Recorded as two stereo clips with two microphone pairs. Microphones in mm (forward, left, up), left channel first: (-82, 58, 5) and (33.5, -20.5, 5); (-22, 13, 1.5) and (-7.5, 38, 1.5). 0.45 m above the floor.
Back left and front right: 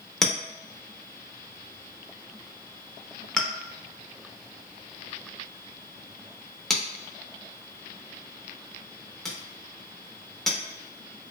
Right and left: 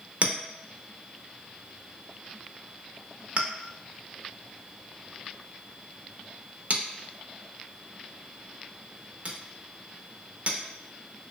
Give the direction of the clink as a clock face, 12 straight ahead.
10 o'clock.